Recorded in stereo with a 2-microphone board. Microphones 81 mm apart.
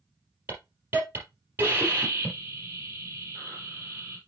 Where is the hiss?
25° right (ahead or behind), 3.5 m.